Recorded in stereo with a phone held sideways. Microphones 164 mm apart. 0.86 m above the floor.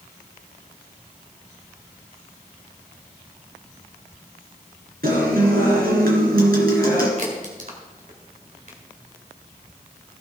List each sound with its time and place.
5.0 s a guitar: 70° right (ahead or behind), 3 m
7.2 s a crack: 55° right (ahead or behind), 2.5 m